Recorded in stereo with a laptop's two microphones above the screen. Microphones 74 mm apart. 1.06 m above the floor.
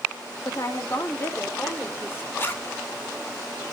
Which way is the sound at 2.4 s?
30° left (ahead or behind).